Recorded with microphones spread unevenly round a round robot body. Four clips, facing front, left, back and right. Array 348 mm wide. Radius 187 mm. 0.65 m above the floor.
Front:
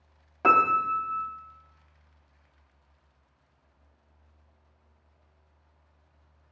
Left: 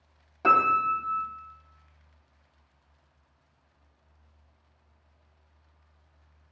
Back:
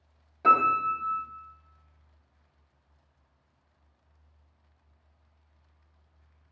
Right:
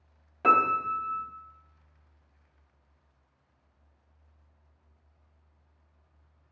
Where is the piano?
5° right, 0.8 m.